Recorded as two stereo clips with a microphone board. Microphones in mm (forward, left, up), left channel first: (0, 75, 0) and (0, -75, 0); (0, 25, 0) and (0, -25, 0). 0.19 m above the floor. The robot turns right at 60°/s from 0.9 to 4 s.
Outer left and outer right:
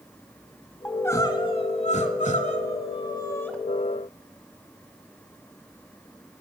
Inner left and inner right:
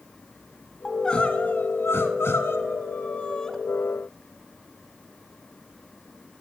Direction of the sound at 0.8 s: 10° left.